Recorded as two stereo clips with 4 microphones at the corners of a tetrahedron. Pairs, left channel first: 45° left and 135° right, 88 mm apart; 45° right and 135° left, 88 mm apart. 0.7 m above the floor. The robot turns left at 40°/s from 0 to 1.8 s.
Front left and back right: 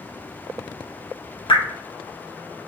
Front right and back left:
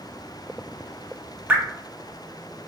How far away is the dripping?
About 0.6 m.